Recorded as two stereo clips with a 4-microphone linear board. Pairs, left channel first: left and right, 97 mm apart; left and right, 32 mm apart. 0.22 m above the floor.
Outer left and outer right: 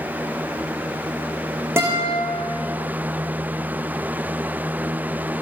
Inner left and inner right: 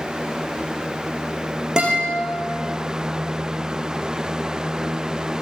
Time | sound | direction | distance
1.8 | a guitar | 25° right (ahead or behind) | 6 m